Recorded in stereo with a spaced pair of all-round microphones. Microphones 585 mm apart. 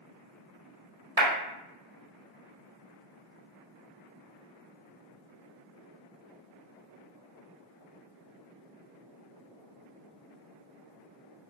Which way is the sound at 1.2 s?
55° right (ahead or behind).